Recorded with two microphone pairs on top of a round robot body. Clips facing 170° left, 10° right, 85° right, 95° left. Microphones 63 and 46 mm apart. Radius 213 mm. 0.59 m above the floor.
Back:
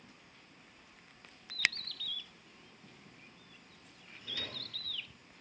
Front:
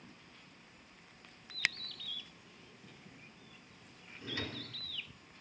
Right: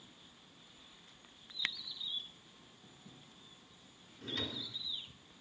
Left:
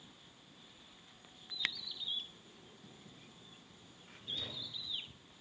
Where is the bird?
75° left, 3 m.